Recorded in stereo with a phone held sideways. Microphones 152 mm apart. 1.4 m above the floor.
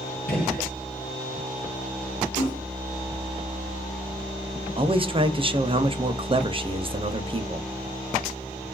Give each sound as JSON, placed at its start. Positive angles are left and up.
{"t": 0.3, "sound": "a gunshot", "side_deg": 80, "distance_m": 1.4}
{"t": 2.4, "sound": "a splash", "side_deg": 30, "distance_m": 2.0}
{"t": 4.8, "sound": "a man speaking", "side_deg": -35, "distance_m": 0.5}